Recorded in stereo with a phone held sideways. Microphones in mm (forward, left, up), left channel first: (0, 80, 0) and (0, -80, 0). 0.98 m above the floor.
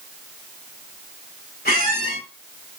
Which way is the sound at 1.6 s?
85° left.